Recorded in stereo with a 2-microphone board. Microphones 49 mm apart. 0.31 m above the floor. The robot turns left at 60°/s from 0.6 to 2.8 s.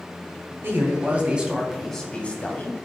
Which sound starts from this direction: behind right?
A man speaking, at 0.6 s.